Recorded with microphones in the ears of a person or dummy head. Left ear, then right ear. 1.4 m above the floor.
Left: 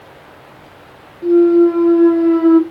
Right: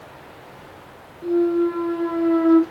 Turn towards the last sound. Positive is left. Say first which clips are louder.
# left 9 dB
turn(degrees=15)  # may be behind; listen again after turning